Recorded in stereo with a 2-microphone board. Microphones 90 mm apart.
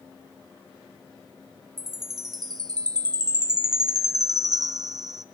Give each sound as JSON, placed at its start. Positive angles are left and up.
{"t": 1.8, "sound": "a chime", "side_deg": -45, "distance_m": 0.8}